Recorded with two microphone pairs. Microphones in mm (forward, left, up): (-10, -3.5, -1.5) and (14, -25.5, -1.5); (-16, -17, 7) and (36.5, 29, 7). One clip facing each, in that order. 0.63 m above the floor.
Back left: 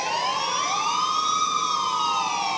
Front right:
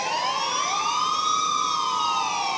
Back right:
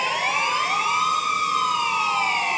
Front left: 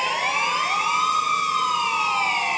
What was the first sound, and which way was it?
Only background noise.